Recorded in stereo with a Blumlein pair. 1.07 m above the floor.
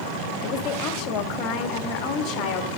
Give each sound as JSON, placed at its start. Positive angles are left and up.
{"t": 0.4, "sound": "a woman speaking", "azimuth_deg": 35, "distance_m": 1.8}